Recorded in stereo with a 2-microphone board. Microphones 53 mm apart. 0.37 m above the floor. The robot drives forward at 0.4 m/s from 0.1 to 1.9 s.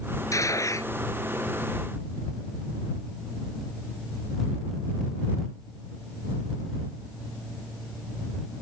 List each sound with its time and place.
0.3 s a gunshot: 75° left (ahead or behind)